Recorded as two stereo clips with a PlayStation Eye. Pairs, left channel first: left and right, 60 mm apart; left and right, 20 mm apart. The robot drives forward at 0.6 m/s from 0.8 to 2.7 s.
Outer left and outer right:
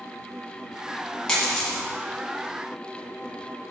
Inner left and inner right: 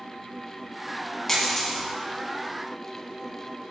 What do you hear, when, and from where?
1.3 s a dropped coin: 10° left (ahead or behind), 1.6 m